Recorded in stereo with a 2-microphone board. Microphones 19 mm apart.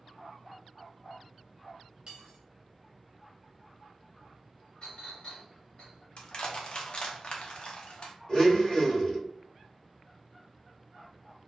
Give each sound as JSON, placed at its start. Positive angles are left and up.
{"t": 2.1, "sound": "cutlery clinking", "side_deg": -40, "distance_m": 0.8}
{"t": 4.8, "sound": "a clink", "side_deg": 55, "distance_m": 1.2}
{"t": 6.2, "sound": "crushing", "side_deg": 50, "distance_m": 0.6}
{"t": 8.3, "sound": "a blender", "side_deg": 35, "distance_m": 1.2}